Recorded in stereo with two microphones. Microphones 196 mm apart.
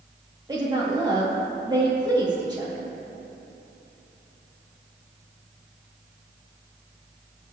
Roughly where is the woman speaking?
Right.